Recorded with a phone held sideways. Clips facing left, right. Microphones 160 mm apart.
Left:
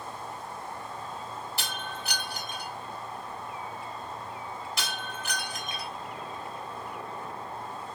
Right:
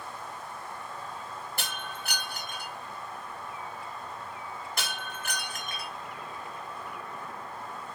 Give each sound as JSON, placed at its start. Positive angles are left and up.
{"t": 0.0, "sound": "an insect", "side_deg": 30, "distance_m": 1.3}
{"t": 1.6, "sound": "breaking glass", "side_deg": -55, "distance_m": 2.5}